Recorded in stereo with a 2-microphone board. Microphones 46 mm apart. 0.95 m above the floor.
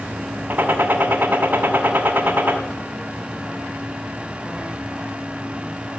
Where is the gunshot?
40° right (ahead or behind), 1.8 m.